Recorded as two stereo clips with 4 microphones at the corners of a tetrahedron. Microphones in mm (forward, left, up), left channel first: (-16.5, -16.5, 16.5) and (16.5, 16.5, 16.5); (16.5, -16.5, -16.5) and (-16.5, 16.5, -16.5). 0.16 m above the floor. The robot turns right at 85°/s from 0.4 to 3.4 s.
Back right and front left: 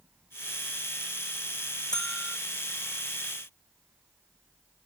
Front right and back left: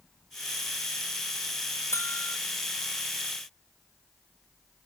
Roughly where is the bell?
Ahead right.